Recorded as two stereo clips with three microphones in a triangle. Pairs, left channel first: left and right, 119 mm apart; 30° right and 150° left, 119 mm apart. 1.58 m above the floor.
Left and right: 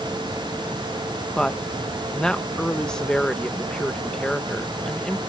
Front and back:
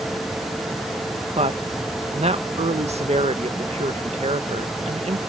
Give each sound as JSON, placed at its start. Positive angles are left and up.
{"t": 1.4, "sound": "a woman speaking", "azimuth_deg": 175}